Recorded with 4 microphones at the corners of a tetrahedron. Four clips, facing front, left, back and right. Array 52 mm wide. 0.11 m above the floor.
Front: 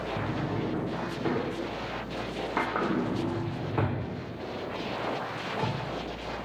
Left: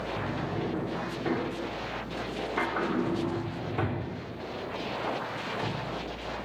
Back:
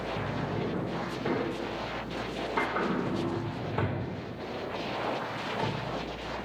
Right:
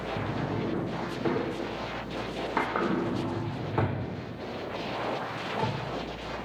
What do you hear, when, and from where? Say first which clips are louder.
0.2 s a drawer: right 2 dB, front 1 dB; 60° right, 2.5 m